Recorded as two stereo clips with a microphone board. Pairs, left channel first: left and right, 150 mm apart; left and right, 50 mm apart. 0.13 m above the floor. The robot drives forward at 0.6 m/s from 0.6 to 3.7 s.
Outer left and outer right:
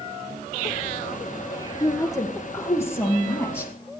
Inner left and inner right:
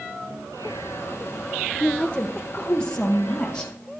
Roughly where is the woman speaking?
Left.